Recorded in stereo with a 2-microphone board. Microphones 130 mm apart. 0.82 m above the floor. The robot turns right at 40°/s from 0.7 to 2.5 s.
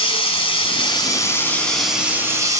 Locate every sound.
0.0 s running water: 135° left, 2.5 m; by 2.6 s 155° right, 2.5 m